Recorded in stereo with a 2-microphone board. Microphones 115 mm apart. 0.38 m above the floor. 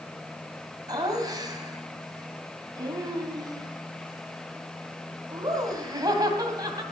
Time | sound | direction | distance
0.9 | laughter | 35° right (ahead or behind) | 2.5 m